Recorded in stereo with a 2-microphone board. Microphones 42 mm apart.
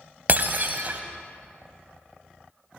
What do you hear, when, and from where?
0.3 s breaking glass: 45° right (ahead or behind), 0.7 m